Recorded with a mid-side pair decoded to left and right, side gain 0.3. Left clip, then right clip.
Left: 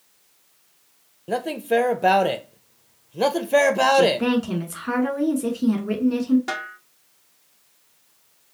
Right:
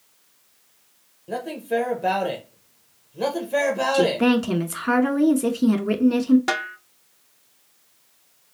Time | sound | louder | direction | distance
1.3 | a man speaking | left 4 dB | 65° left | 0.6 m
3.9 | a woman speaking | left 1 dB | 50° right | 1.2 m
6.5 | a snare drum | right 4 dB | 70° right | 0.6 m